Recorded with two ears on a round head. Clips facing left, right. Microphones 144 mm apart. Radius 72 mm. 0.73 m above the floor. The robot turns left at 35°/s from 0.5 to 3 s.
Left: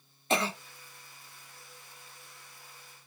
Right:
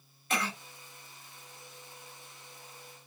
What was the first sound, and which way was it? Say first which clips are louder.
A cough: left 5 dB; 25° left (ahead or behind).